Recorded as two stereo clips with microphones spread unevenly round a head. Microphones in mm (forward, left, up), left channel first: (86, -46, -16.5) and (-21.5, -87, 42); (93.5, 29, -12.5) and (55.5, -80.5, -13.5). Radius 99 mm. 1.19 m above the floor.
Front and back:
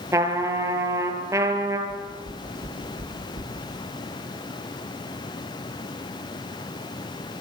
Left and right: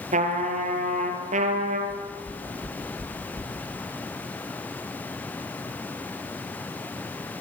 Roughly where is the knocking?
Behind.